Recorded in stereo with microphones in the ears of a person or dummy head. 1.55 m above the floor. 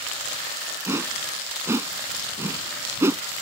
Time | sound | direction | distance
0.9 | a whoosh | 10° right (ahead or behind) | ?